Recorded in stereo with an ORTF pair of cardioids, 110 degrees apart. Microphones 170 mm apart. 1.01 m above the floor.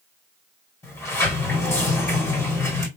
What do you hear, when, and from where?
0.8 s a sliding door: 15° left, 1.6 m